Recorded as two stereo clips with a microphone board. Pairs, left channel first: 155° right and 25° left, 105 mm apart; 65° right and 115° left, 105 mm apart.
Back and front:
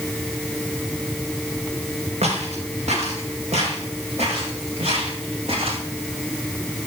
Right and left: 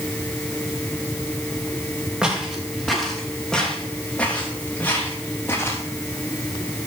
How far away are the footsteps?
About 5.5 m.